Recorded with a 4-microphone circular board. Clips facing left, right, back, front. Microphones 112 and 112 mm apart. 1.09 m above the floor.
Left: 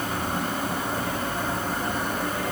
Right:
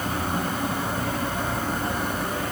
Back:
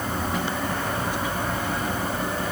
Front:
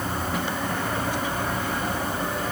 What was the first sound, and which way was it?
Only background noise.